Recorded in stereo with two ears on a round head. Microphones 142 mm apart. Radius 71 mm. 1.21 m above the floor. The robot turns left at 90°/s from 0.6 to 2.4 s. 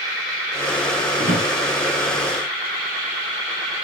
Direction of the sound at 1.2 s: 40° right (ahead or behind).